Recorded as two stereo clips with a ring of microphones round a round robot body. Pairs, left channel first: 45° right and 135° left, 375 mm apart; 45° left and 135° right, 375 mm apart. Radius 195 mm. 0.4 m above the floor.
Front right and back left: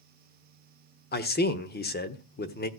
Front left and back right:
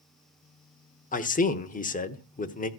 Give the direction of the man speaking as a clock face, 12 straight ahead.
12 o'clock.